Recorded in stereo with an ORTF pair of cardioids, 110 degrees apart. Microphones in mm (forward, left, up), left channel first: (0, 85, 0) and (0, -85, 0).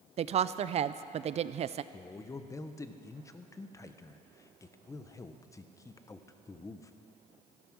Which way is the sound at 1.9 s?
20° left.